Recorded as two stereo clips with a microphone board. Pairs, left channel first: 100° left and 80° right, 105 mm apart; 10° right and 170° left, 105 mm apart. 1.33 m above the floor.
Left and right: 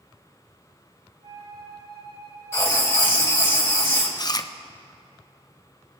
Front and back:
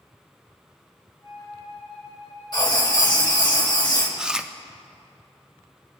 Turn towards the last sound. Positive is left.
turn(degrees=90)